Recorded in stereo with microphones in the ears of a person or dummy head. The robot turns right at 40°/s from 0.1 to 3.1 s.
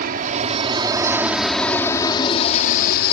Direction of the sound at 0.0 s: 50° right (ahead or behind).